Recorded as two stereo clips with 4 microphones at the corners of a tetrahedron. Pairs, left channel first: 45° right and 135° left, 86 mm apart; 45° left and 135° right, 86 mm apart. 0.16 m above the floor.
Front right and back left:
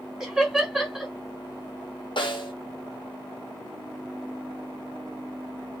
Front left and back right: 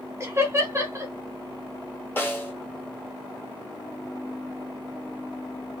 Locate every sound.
0.2 s laughter: 145° right, 1.1 m
2.2 s a snare drum: 20° right, 1.1 m